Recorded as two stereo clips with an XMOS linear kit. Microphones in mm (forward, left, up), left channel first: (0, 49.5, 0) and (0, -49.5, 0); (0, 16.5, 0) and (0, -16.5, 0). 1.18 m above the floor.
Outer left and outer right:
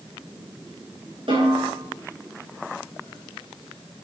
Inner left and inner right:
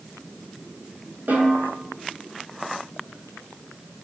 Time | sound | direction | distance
1.3 | a snare drum | 65° right (ahead or behind) | 8 m